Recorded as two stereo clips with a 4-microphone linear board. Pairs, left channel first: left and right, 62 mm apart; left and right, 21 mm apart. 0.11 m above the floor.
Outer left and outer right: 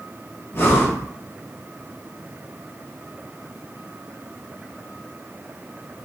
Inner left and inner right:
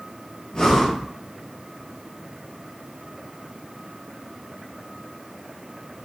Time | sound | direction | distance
0.5 | breathing | 40° left (ahead or behind) | 1.1 m